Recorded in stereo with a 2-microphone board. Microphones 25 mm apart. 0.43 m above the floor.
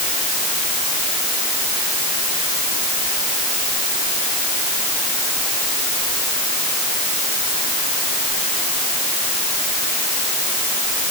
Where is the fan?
I don't hear a fan.